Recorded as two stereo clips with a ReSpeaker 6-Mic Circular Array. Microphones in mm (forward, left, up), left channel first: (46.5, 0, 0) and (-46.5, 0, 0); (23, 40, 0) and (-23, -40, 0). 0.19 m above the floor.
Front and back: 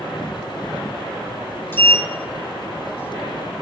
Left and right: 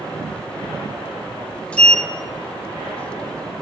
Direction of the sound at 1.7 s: 10° left.